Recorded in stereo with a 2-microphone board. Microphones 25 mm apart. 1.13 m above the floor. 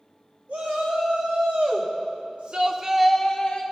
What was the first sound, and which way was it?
A shout, 70° right (ahead or behind).